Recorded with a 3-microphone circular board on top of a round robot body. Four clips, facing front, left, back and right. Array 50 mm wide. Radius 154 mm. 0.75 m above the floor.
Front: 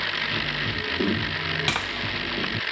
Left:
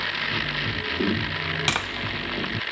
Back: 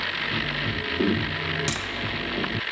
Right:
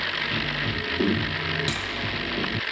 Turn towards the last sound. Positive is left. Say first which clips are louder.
# left 4 dB, front 4 dB
turn(degrees=65)